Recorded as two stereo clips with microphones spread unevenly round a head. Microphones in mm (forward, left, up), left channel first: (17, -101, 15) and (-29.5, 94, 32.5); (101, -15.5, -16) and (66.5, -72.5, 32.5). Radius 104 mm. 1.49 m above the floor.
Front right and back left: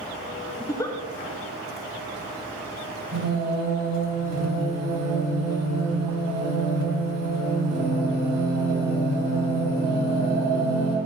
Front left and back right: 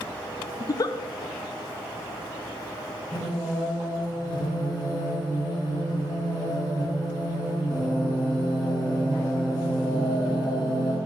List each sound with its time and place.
0.6 s a giggle: straight ahead, 0.5 m
3.1 s singing: 100° left, 3 m